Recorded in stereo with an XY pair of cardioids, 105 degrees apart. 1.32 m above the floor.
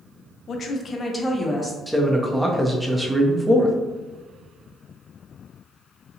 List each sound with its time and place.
0.5 s a woman speaking: 55° left, 0.6 m; by 1.8 s 5° left, 0.9 m
1.9 s a man speaking: 5° right, 0.7 m